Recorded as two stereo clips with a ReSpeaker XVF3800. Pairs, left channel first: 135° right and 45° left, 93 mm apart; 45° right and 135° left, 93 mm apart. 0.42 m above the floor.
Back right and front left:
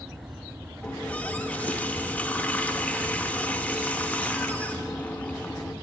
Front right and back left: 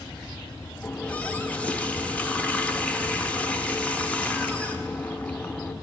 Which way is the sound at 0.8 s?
90° right.